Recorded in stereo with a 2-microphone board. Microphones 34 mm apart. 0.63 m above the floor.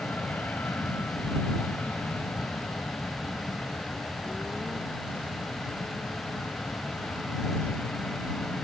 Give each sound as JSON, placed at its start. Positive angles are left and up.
{"t": 0.0, "sound": "an aircraft", "side_deg": 70}